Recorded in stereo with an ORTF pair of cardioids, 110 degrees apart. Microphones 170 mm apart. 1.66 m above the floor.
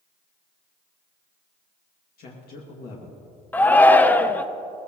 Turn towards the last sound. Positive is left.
turn(degrees=10)